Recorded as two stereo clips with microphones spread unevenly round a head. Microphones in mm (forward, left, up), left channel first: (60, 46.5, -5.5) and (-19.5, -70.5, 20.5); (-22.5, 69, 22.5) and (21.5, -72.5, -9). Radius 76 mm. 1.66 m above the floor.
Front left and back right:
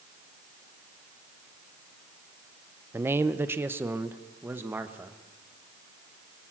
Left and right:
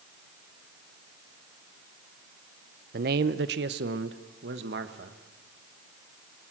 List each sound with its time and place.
2.9 s a man speaking: 65° right, 0.7 m; by 5.2 s 50° right, 1.7 m